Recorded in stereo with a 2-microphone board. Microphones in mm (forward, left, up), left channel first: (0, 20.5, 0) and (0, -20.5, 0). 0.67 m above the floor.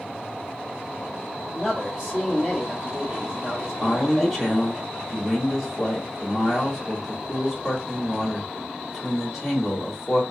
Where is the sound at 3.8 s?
5° left (ahead or behind), 1.7 m.